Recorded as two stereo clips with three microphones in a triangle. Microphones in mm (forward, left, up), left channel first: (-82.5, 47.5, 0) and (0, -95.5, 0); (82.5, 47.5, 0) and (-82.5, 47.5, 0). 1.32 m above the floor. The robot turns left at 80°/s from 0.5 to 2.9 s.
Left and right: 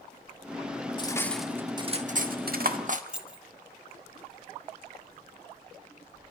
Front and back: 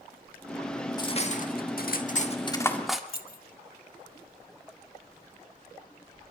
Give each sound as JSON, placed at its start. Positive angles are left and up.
{"t": 1.0, "sound": "cutlery clinking", "azimuth_deg": 65, "distance_m": 1.5}
{"t": 3.1, "sound": "keys jangling", "azimuth_deg": 25, "distance_m": 1.1}